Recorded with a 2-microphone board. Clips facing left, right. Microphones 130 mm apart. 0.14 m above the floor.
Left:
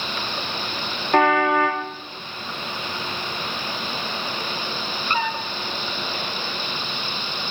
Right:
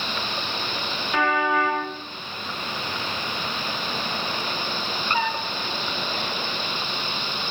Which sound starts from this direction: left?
A car horn, at 1.1 s.